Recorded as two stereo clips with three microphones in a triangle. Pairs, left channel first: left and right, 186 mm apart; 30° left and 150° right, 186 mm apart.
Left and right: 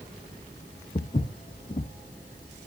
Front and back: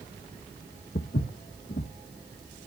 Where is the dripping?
I don't hear dripping.